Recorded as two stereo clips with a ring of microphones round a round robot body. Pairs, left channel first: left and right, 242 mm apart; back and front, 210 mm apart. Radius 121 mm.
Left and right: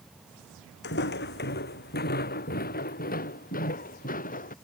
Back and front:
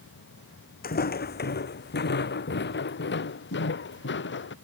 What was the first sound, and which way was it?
Footsteps, 135° left.